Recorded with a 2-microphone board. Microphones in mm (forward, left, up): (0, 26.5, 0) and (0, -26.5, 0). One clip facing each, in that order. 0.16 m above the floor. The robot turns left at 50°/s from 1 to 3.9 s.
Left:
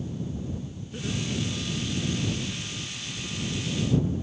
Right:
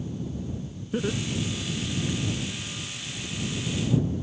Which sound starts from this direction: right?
Laughter, at 0.9 s.